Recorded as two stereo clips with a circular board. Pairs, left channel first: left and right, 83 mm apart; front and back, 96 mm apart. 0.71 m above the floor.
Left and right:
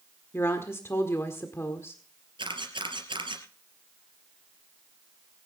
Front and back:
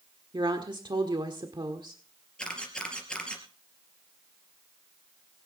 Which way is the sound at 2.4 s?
80° right.